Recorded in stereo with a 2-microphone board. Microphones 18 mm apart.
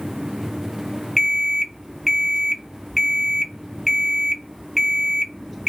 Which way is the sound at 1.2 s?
5° right (ahead or behind).